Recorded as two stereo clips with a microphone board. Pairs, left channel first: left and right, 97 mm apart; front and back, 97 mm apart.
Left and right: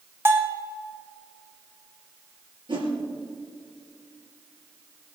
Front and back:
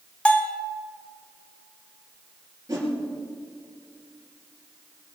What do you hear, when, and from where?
0.2 s a bell: 65° right, 1.3 m
2.7 s a whoosh: 125° right, 4 m